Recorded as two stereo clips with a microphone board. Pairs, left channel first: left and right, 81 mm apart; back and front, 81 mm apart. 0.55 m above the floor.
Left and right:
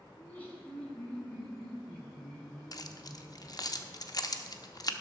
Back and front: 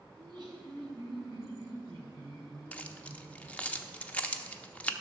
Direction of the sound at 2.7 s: 110° left.